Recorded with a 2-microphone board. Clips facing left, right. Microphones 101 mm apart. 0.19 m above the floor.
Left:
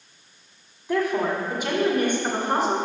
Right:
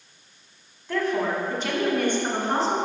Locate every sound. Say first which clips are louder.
0.9 s a woman speaking: left 2 dB; 15° left (ahead or behind), 1.3 m